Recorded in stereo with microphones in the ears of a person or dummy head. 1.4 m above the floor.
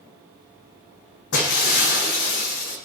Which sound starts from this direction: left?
Breaking glass, at 1.3 s.